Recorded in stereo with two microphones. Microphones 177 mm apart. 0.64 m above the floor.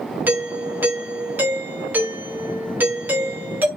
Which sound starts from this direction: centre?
A doorbell, at 0.3 s.